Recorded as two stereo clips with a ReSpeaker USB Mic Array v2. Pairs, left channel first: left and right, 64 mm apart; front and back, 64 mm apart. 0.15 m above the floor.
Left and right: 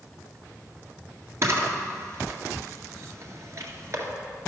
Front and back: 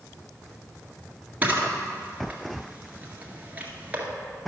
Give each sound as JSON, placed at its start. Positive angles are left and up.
{"t": 1.4, "sound": "a camera shutter", "azimuth_deg": -120, "distance_m": 1.7}